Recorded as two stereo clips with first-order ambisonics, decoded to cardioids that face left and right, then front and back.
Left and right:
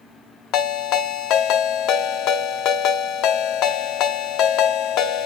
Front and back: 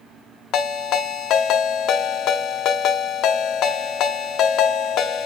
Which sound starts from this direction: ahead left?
A ringtone, at 0.5 s.